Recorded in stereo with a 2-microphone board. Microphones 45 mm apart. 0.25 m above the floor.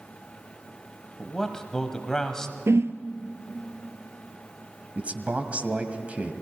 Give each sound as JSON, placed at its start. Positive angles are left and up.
{"t": 1.2, "sound": "a man speaking", "side_deg": 15, "distance_m": 1.2}
{"t": 2.7, "sound": "a whoosh", "side_deg": -85, "distance_m": 1.2}
{"t": 5.0, "sound": "a man speaking", "side_deg": -30, "distance_m": 1.7}